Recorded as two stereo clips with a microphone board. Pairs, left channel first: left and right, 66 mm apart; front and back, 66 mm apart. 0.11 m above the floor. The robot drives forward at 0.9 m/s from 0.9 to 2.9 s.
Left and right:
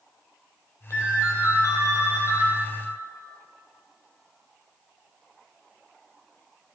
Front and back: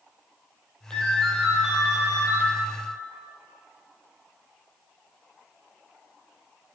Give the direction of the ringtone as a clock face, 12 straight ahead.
10 o'clock.